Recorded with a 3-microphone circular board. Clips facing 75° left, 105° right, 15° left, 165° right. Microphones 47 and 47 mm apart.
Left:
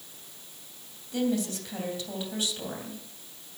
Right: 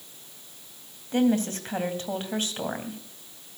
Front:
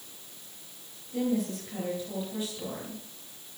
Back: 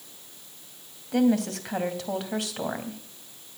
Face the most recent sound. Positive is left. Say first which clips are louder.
# right 5 dB, back 6 dB
turn(degrees=-150)